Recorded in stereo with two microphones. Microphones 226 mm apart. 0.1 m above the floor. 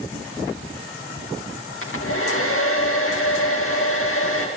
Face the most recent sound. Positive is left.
turn(degrees=70)  # may be behind; listen again after turning